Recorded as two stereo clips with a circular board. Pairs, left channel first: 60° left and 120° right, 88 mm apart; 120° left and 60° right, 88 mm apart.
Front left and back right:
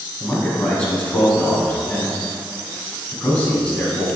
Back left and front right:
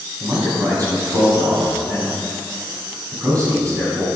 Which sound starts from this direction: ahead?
A man speaking, at 0.2 s.